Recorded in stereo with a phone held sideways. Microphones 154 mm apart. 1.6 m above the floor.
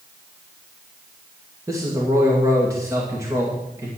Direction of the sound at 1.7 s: 20° right (ahead or behind).